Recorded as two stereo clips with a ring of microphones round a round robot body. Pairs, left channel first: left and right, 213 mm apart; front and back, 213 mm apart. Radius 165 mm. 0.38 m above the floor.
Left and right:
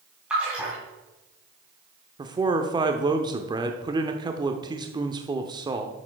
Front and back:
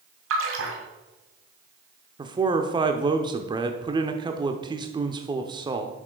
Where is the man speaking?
135° right, 0.8 m.